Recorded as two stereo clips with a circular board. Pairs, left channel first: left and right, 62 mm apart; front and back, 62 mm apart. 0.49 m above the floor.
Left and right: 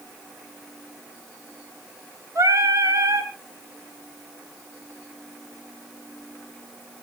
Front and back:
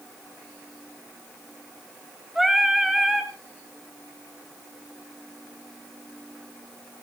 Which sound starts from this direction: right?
Singing, at 2.4 s.